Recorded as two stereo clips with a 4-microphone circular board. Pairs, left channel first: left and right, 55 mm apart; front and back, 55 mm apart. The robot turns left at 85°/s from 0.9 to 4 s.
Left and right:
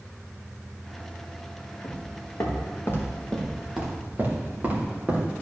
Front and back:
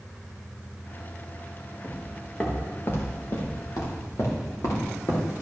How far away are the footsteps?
About 3 m.